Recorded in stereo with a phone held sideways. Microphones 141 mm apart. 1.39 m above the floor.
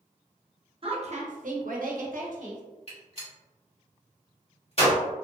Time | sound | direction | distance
0.8 | a woman speaking | 40° right (ahead or behind) | 0.8 m
2.9 | a gunshot | 45° left (ahead or behind) | 1.4 m